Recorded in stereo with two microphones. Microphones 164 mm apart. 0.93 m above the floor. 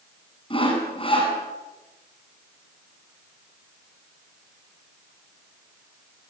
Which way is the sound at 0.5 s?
35° left (ahead or behind).